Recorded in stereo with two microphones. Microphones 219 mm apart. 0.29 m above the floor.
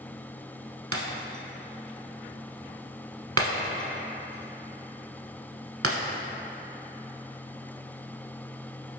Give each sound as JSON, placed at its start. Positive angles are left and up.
{"t": 0.9, "sound": "breaking glass", "side_deg": -80, "distance_m": 0.8}